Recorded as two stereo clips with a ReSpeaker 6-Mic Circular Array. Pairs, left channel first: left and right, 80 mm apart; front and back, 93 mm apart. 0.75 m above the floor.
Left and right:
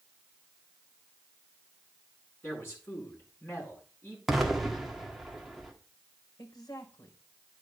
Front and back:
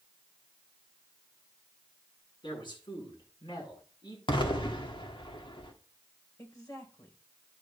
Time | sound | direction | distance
2.4 | a man speaking | 30° left | 8.5 m
4.3 | an explosion | straight ahead | 1.9 m
6.4 | a woman speaking | 50° left | 3 m